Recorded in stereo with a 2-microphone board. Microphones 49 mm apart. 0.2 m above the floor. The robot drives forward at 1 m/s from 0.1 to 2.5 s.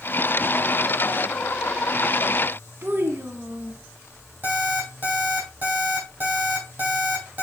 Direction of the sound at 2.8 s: 50° right (ahead or behind).